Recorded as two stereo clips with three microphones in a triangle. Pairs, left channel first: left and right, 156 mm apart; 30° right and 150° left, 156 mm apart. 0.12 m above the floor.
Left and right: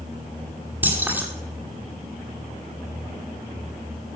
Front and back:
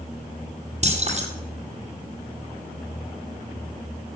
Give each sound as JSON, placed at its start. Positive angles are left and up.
{"t": 0.8, "sound": "keys jangling", "azimuth_deg": -165, "distance_m": 2.5}